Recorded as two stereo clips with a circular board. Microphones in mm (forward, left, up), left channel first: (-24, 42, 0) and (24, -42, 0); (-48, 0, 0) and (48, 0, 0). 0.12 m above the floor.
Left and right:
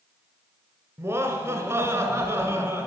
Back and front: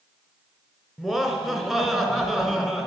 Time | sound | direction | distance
1.0 | laughter | 85° right | 1.2 m